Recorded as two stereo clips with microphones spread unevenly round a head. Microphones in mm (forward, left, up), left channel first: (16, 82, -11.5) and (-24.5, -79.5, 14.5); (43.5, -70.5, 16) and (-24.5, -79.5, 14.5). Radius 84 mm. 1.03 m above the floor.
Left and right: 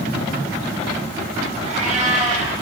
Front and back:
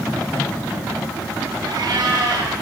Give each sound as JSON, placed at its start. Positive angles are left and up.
{"t": 1.6, "sound": "a cat meowing", "azimuth_deg": -155, "distance_m": 8.5}